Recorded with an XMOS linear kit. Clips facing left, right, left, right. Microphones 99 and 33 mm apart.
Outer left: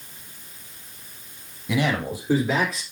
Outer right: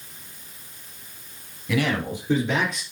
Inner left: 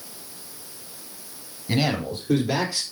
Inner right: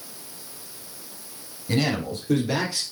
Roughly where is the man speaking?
Centre.